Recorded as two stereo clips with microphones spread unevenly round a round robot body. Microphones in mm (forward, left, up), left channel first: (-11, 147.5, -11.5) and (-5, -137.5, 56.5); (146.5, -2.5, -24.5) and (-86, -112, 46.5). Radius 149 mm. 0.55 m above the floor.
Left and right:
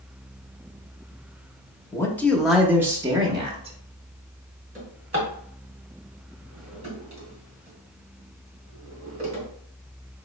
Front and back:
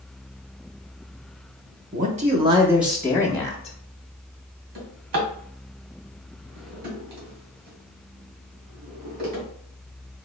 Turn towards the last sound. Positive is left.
turn(degrees=-160)